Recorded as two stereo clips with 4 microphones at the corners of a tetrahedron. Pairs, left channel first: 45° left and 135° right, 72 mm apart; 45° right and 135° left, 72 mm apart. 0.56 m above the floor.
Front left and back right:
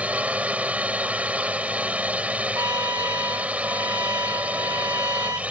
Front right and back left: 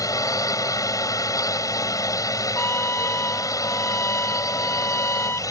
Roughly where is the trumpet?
Right.